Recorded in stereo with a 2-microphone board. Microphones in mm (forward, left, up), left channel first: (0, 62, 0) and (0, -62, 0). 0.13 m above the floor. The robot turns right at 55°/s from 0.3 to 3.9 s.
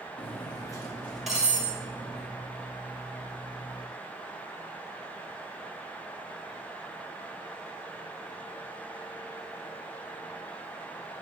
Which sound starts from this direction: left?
Cutlery clinking, at 0.2 s.